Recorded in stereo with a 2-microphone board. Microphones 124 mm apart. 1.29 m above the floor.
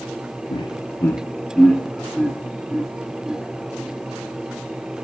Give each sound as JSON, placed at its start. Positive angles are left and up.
{"t": 0.5, "sound": "laughter", "side_deg": 45, "distance_m": 0.6}